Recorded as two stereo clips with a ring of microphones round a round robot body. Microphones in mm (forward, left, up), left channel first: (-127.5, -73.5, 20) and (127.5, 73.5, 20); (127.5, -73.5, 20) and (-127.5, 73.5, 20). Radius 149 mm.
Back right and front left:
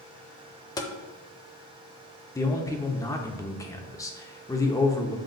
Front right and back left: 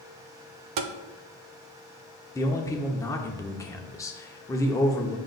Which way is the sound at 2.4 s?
90° right.